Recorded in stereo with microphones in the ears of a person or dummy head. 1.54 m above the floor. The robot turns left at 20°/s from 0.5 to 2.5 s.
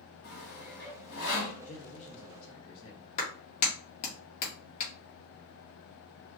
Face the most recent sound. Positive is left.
turn(degrees=40)  # may be behind; listen again after turning